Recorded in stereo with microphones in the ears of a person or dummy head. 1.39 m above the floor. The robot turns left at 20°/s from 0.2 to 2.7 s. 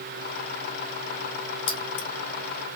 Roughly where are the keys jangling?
Left.